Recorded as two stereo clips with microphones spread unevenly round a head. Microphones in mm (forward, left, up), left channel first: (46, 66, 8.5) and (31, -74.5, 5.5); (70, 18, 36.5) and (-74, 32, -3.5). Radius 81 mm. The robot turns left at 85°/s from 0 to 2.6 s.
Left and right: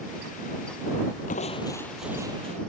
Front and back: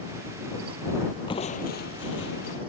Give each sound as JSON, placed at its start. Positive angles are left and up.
{"t": 1.3, "sound": "crushing", "azimuth_deg": 55}